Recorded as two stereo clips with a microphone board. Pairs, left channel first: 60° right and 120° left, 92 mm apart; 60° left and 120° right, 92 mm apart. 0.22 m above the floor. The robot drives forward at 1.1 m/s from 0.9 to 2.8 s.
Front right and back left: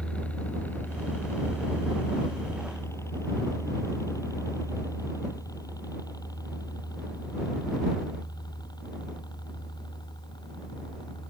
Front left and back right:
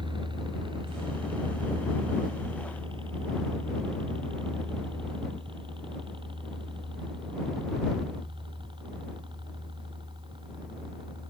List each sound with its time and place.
0.0 s a helicopter: 135° right; by 11.3 s 95° right